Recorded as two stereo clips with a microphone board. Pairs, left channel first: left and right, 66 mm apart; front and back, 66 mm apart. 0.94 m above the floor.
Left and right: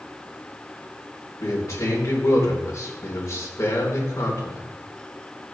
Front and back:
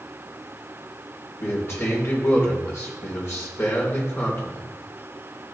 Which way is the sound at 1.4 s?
45° left.